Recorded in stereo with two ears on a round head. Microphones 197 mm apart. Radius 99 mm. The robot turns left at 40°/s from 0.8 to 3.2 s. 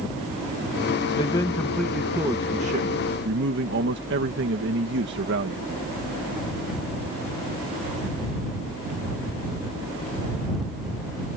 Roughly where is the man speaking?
Ahead left.